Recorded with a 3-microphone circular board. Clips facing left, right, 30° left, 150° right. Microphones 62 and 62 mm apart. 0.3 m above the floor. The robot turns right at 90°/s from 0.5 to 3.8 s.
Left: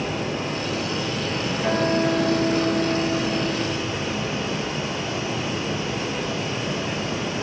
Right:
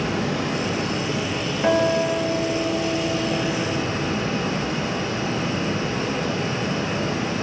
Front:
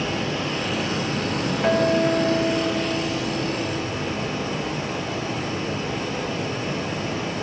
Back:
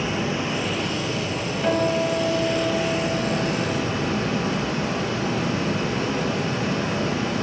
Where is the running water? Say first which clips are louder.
Right 2 dB, back 1 dB; 75° right, 0.9 m; by 7.4 s 140° right, 0.9 m.